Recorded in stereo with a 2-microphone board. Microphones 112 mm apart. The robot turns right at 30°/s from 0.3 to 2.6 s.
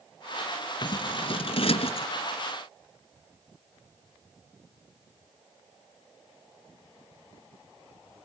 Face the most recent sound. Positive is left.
turn(degrees=110)